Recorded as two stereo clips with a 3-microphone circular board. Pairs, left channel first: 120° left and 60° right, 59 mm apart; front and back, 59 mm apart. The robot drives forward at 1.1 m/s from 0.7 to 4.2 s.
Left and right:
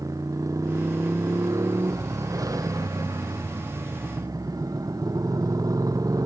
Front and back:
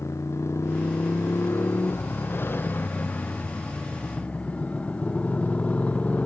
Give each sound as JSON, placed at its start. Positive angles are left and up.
{"t": 0.0, "sound": "a motorcycle", "azimuth_deg": -40}